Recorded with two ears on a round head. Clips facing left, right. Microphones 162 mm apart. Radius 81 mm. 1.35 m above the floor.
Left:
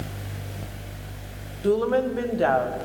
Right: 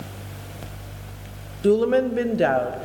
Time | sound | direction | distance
1.6 | a woman speaking | 25° right (ahead or behind) | 0.7 m